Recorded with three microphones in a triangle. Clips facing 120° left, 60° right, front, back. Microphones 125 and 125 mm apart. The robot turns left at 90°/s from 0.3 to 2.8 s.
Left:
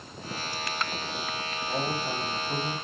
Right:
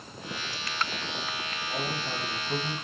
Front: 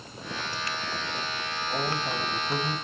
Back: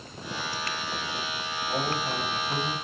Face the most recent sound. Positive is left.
turn(degrees=0)